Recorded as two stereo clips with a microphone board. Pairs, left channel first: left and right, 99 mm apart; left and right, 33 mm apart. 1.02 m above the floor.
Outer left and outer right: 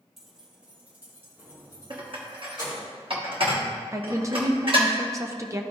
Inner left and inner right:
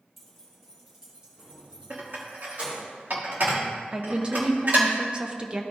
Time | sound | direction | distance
0.2 | keys jangling | 5° right (ahead or behind) | 1.9 m
1.9 | dishes clattering | 55° right (ahead or behind) | 1.4 m
3.9 | a woman speaking | 30° right (ahead or behind) | 0.7 m